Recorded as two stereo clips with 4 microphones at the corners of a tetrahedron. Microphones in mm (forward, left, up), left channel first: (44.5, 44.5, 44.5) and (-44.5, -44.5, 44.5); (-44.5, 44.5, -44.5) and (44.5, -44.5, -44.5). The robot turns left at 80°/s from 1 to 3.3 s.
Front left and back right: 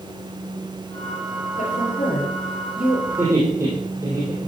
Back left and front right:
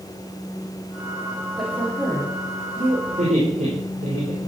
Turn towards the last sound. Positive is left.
turn(degrees=-70)